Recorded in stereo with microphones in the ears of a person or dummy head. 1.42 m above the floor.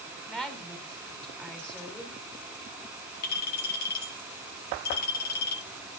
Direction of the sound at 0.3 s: 5° left (ahead or behind).